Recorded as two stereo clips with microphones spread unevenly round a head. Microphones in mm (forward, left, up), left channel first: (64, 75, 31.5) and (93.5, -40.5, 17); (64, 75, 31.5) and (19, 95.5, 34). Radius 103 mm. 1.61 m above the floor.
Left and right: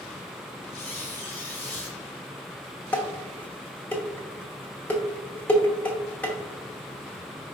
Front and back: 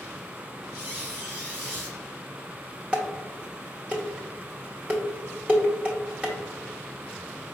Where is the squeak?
175° left, 0.9 m.